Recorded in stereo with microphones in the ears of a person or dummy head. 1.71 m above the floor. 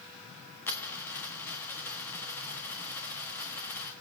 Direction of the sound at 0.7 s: 10° left (ahead or behind).